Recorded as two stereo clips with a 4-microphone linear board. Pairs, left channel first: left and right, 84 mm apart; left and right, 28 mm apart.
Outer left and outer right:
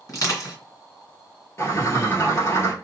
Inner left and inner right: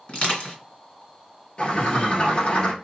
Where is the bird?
40° left (ahead or behind), 1.2 m.